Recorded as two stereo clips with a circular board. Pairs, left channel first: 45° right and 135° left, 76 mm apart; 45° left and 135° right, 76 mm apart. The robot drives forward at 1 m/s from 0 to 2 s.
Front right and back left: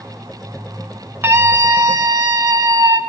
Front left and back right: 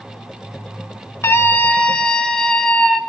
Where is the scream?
85° left, 1.3 m; by 3.0 s 125° left, 1.5 m.